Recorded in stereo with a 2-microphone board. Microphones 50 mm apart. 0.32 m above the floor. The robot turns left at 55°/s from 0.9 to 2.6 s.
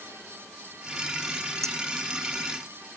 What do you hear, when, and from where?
1.6 s a clink: 70° right (ahead or behind); by 1.8 s 65° right (ahead or behind)